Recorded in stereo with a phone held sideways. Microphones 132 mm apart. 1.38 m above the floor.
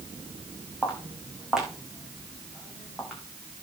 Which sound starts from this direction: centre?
Footsteps, at 0.8 s.